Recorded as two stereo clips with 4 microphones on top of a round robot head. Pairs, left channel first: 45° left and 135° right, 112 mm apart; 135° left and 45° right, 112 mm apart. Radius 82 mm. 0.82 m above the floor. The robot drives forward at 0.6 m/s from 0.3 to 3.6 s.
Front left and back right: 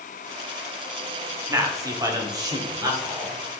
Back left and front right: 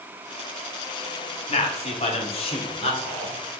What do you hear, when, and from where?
1.5 s a man speaking: 165° left, 1.6 m; by 3.4 s 170° left, 2.5 m